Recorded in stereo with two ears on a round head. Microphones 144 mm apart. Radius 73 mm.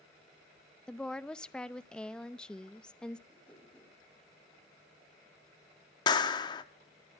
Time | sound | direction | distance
0.9 | a woman speaking | 5° left (ahead or behind) | 0.6 m
3.3 | a whoosh | 10° left (ahead or behind) | 4 m
6.1 | a clap | 25° left (ahead or behind) | 1.0 m